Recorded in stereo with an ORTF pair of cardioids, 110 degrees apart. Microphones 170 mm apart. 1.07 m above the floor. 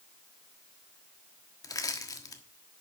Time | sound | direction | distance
1.6 | crushing | 20° left | 1.4 m